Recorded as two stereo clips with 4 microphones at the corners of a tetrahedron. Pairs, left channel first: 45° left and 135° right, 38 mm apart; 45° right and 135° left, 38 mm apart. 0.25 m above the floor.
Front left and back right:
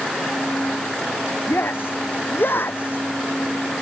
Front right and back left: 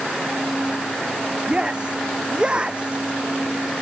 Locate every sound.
1.5 s a shout: 70° left